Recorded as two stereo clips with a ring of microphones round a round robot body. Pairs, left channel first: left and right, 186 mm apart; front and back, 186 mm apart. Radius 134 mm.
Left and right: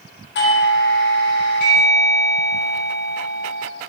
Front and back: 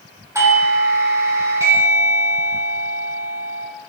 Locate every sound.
0.3 s a doorbell: 110° left, 3.5 m